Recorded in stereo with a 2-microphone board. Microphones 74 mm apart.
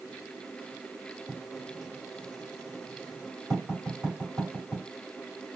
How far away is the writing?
About 2.5 m.